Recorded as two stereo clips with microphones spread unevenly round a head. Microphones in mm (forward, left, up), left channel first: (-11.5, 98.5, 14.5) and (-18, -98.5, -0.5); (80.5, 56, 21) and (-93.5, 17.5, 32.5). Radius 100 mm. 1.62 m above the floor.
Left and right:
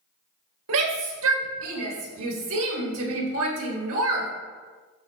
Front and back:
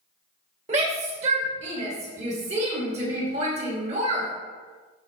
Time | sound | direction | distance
0.7 | a shout | 110° right | 1.9 m